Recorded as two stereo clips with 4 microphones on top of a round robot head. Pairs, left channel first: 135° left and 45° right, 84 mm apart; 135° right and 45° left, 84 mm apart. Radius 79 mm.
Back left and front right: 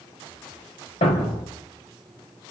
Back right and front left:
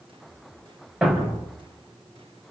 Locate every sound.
1.0 s a thud: 130° left, 3 m